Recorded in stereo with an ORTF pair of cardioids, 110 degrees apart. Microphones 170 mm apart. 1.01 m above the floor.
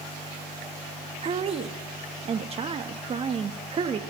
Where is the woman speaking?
35° right, 1.2 m.